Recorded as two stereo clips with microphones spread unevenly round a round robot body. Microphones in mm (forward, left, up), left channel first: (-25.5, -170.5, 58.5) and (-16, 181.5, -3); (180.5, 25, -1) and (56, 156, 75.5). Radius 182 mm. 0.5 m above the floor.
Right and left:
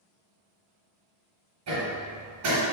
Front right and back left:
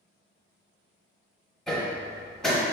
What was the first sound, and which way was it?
Hammering, 40° left.